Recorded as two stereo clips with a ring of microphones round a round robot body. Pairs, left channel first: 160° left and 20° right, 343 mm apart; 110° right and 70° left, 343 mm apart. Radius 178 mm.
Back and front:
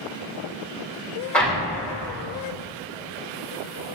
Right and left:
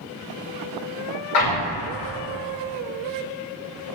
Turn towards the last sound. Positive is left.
turn(degrees=-115)